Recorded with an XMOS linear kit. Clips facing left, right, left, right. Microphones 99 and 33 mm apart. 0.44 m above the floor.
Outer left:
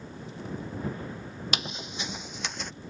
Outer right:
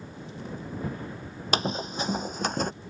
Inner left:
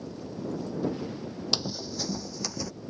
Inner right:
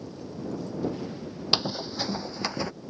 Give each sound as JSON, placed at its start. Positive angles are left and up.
{"t": 1.5, "sound": "running footsteps", "side_deg": -35}